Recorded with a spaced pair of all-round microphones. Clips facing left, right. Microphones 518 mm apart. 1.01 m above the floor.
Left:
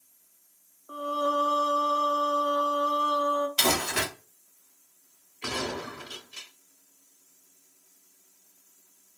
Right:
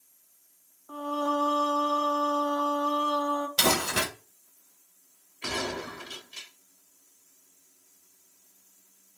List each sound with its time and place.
0.9 s singing: 15° right (ahead or behind), 0.5 m
3.6 s crumpling: 55° right (ahead or behind), 1.5 m
5.4 s a gunshot: 5° right (ahead or behind), 1.4 m